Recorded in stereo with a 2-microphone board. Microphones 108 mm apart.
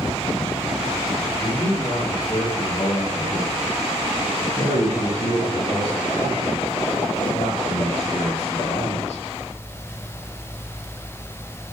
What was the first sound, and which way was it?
A man speaking, 30° left (ahead or behind).